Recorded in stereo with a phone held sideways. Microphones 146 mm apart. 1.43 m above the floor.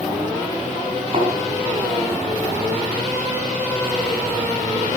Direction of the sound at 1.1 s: 45° right (ahead or behind).